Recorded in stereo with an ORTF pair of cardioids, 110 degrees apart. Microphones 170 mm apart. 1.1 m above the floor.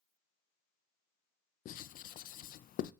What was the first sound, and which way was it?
Writing, 55° left.